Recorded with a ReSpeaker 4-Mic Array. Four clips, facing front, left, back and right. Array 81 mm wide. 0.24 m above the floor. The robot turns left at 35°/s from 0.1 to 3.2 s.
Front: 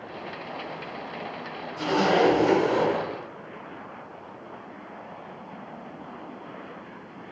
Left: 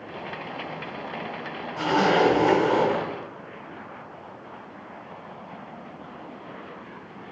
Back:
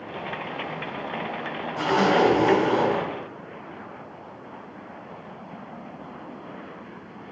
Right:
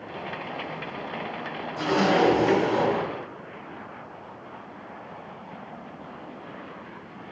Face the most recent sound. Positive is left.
turn(degrees=110)